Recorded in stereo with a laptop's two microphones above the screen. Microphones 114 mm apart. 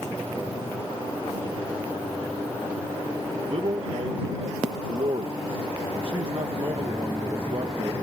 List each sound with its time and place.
3.5 s a man speaking: 50° right (ahead or behind)